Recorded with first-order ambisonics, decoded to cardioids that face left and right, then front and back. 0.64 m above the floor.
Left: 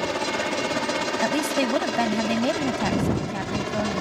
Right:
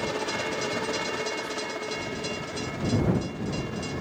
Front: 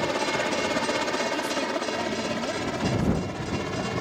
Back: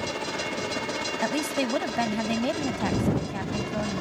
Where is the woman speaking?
115° left.